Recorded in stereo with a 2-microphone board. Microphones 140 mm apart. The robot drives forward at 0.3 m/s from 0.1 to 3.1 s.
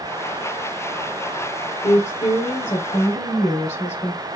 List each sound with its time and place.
1.8 s a woman speaking: 55° left (ahead or behind), 2.5 m